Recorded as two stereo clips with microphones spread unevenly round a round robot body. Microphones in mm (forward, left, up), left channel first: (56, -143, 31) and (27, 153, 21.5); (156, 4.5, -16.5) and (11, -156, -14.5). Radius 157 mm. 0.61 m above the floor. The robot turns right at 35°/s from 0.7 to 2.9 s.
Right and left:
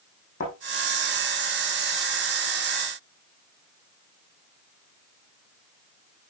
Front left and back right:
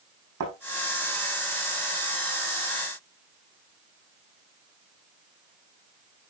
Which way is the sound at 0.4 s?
150° right.